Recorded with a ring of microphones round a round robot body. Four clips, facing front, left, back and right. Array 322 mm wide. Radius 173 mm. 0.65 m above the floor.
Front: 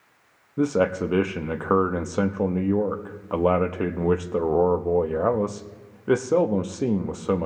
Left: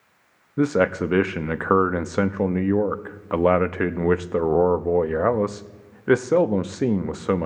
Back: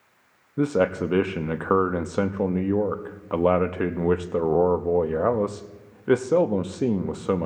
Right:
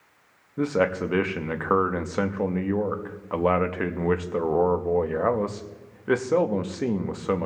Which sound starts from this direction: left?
A man speaking, at 0.6 s.